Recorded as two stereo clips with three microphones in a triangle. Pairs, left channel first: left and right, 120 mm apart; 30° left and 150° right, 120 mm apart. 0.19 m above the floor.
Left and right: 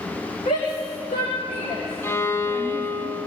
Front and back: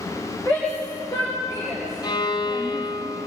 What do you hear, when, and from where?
0.5 s a shout: 90° left, 9.5 m; by 2.9 s 85° left, 9 m
2.0 s a violin: 35° left, 0.9 m